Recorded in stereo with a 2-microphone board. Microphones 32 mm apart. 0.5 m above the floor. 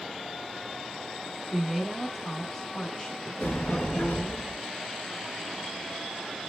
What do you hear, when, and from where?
1.5 s a woman speaking: 25° right (ahead or behind), 0.8 m; by 4.4 s 55° left (ahead or behind), 1.3 m
3.4 s a sliding door: 85° left, 2.5 m